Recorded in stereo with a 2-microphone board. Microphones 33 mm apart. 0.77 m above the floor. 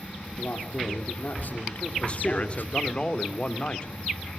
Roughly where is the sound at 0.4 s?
Left.